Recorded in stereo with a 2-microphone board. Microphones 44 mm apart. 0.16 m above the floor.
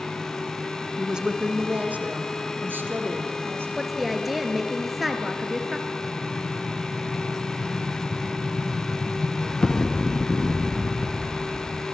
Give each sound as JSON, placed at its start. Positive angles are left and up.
{"t": 1.0, "sound": "a woman speaking", "side_deg": -10, "distance_m": 1.6}
{"t": 3.8, "sound": "a woman speaking", "side_deg": -5, "distance_m": 2.5}
{"t": 6.0, "sound": "an explosion", "side_deg": 20, "distance_m": 1.9}